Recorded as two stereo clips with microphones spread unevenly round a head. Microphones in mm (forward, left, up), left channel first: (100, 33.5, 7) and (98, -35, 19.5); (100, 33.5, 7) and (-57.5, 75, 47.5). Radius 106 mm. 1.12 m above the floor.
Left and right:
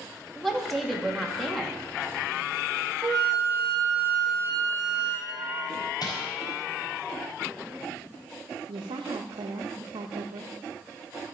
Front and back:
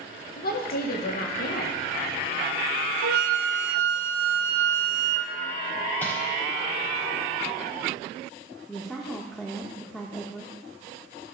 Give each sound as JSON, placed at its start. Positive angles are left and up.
{"t": 0.3, "sound": "a woman speaking", "azimuth_deg": 0, "distance_m": 2.5}
{"t": 3.0, "sound": "a flute", "azimuth_deg": 175, "distance_m": 1.1}
{"t": 6.0, "sound": "crumpling", "azimuth_deg": 65, "distance_m": 4.5}
{"t": 8.7, "sound": "a woman speaking", "azimuth_deg": -100, "distance_m": 0.9}